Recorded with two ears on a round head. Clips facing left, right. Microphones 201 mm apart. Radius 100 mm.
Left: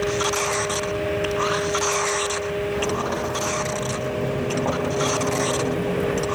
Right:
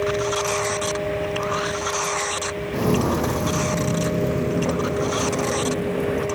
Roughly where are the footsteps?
Right.